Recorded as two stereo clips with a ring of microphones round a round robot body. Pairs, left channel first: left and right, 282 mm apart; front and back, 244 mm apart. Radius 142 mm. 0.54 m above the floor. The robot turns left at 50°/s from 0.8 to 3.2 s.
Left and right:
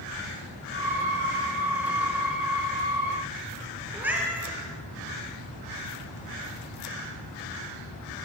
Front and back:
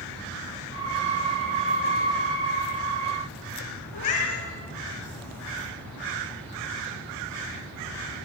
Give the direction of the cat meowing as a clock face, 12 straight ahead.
12 o'clock.